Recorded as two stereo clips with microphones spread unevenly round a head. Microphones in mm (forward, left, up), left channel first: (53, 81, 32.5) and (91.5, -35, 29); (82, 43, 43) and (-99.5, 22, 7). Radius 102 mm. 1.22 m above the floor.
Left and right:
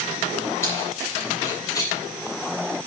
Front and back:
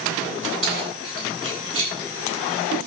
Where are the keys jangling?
170° right, 8 m; by 1.9 s 175° right, 8.5 m.